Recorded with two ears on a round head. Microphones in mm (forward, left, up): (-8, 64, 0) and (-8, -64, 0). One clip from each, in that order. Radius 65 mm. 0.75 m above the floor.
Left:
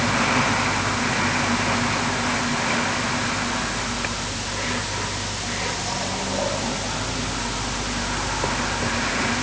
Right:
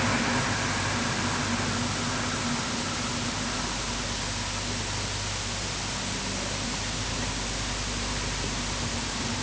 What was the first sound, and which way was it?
Only background noise.